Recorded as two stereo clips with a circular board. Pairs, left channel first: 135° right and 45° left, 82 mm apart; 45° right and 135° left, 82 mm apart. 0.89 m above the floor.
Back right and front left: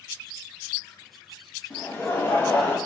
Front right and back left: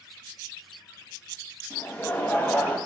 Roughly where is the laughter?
Right.